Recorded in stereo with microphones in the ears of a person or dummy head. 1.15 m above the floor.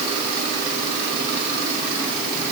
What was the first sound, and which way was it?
Only background noise.